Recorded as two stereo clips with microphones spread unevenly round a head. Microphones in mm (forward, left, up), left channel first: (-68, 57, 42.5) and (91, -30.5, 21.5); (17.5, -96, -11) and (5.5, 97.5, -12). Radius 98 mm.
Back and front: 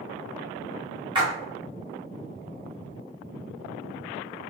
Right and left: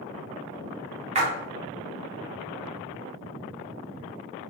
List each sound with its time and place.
1.1 s a splash: 40° left, 0.8 m